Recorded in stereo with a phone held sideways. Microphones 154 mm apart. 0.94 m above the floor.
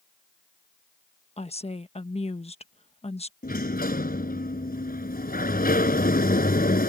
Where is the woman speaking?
40° left (ahead or behind).